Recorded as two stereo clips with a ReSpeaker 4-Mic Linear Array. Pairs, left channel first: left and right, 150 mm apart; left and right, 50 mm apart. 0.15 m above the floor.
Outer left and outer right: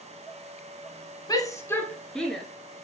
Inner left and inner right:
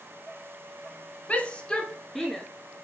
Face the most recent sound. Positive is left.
turn(degrees=0)  # may be behind; listen again after turning